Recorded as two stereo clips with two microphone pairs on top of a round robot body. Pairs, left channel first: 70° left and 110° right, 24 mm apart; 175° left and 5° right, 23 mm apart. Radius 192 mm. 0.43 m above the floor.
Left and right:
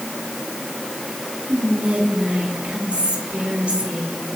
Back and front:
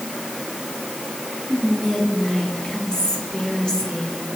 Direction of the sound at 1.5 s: 135° right.